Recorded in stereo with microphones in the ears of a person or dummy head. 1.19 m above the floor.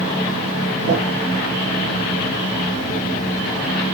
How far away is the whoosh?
About 3 m.